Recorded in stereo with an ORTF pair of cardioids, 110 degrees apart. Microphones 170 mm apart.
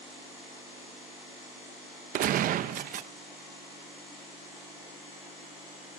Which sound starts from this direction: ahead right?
A gunshot, at 2.1 s.